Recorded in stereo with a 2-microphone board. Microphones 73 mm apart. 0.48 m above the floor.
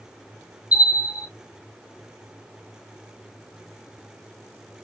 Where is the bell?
20° right (ahead or behind), 1.5 m.